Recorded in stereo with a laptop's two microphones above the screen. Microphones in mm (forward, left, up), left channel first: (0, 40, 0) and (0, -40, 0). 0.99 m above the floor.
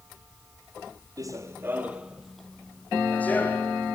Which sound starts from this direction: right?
Running footsteps, at 1.2 s.